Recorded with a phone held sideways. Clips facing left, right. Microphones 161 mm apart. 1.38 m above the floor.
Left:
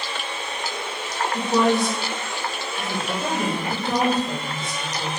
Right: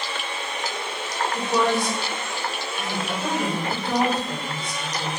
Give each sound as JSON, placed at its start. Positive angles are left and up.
{"t": 1.3, "sound": "a woman speaking", "side_deg": 25, "distance_m": 3.5}